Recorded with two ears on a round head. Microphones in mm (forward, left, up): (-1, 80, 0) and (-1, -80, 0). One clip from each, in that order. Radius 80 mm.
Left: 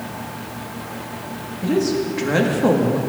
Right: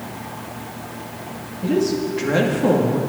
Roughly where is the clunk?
No clunk in this recording.